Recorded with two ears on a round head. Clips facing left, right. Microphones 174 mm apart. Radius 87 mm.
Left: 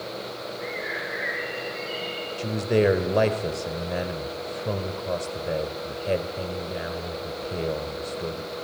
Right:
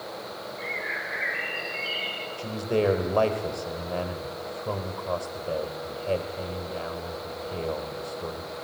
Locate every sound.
0.6 s a bird: 40° right (ahead or behind), 2 m
2.4 s a man speaking: 20° left (ahead or behind), 1.6 m